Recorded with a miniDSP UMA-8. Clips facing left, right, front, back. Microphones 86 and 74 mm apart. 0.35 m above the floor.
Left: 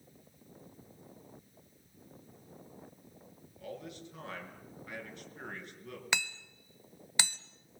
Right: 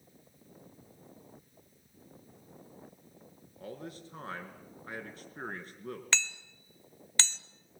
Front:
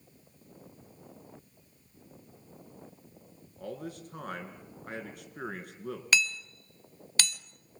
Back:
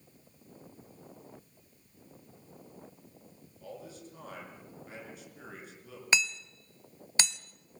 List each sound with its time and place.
3.6 s a man speaking: 35° right, 4.5 m
6.1 s hammering: 150° left, 1.0 m